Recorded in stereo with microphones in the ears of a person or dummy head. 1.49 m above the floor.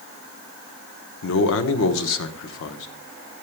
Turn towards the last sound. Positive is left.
turn(degrees=65)  # may be behind; listen again after turning